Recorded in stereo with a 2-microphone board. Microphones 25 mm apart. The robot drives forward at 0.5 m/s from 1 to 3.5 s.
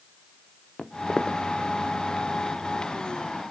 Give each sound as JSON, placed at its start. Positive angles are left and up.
{"t": 0.8, "sound": "footsteps", "side_deg": 35, "distance_m": 1.1}